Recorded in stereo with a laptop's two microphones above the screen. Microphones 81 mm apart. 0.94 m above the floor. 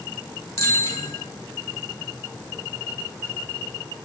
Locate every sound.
0.6 s a bicycle bell: 40° left (ahead or behind), 7 m